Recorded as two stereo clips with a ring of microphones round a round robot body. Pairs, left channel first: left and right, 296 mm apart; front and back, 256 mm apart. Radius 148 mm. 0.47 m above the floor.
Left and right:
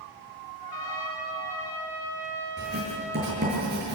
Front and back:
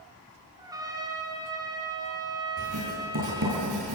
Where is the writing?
150° right, 9 m.